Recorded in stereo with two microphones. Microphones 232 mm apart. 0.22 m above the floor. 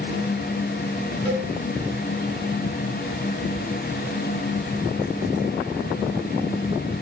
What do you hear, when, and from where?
1.2 s a cowbell: 30° right (ahead or behind), 1.6 m